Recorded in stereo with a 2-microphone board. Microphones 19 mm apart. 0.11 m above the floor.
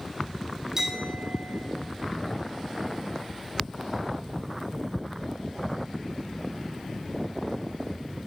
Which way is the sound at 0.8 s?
15° right (ahead or behind).